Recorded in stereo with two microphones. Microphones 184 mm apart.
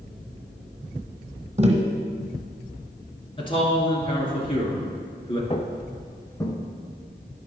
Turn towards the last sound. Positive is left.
turn(degrees=15)  # may be behind; listen again after turning